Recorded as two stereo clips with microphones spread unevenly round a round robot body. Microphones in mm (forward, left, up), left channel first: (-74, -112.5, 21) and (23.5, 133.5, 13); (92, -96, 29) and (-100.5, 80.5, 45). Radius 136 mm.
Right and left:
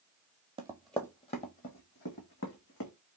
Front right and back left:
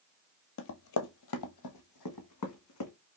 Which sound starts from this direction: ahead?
Running footsteps, at 0.6 s.